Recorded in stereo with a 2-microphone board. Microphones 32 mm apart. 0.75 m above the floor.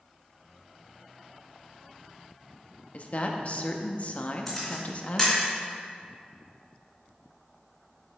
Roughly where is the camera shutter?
Centre.